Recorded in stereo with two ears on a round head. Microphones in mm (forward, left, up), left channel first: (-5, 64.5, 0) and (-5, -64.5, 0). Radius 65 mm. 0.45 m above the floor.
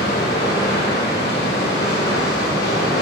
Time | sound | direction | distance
0.0 | running water | 75° left (ahead or behind) | 3 m